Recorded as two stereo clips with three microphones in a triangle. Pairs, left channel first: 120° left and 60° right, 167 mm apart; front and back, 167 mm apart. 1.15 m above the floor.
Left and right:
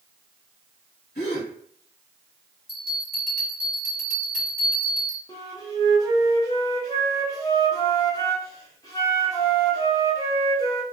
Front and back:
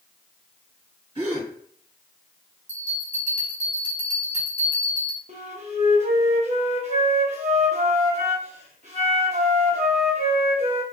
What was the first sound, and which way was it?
A gasp, 125° left.